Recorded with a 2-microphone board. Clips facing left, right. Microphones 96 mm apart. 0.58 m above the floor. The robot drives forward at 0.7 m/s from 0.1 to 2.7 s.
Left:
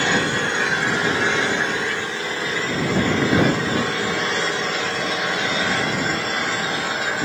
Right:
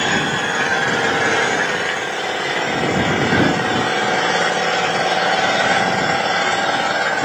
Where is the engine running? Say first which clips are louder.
Right 2 dB; 55° right (ahead or behind), 2.5 m; by 7.2 s 75° right (ahead or behind), 2 m.